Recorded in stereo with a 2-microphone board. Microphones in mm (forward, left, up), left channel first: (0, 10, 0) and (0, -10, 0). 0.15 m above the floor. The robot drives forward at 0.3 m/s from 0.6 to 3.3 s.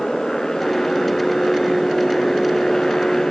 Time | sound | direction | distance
0.0 | a motorcycle | 30° left (ahead or behind) | ?